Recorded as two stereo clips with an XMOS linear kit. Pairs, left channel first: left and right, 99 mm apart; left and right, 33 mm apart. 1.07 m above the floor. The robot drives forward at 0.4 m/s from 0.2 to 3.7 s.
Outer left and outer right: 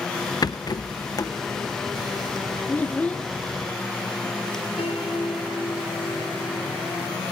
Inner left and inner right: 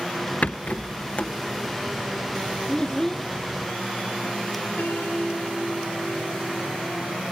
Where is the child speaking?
20° left (ahead or behind), 0.6 m; by 3.3 s 15° left (ahead or behind), 0.9 m.